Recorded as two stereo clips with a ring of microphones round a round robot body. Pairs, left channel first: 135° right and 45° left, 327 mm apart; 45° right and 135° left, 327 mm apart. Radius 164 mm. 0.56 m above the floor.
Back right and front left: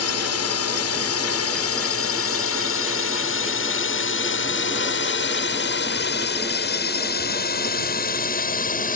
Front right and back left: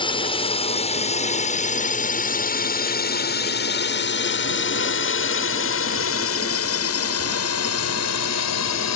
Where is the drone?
115° right; by 8.9 s 75° right.